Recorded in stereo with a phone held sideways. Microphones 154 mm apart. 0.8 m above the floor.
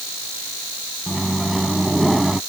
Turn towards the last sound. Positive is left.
turn(degrees=0)  # may be behind; listen again after turning